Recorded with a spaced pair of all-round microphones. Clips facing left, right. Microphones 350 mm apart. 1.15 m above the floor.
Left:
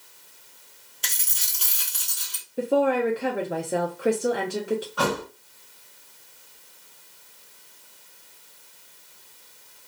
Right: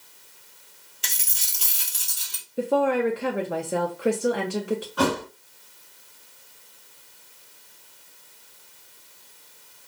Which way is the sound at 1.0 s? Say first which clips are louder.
Even; 15° right (ahead or behind).